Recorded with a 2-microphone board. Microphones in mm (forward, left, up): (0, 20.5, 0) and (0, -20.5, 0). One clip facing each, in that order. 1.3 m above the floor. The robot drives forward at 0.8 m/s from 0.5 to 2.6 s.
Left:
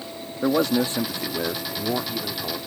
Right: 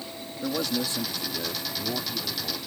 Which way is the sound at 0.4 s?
50° left (ahead or behind).